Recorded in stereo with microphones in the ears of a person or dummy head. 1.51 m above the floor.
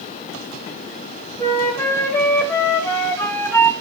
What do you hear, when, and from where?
1.4 s a flute: 10° left (ahead or behind), 2 m